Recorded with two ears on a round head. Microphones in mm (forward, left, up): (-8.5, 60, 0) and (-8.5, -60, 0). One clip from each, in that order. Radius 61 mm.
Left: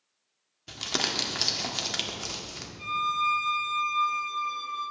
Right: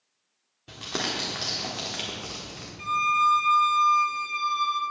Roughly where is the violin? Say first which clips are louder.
Right 5 dB; right.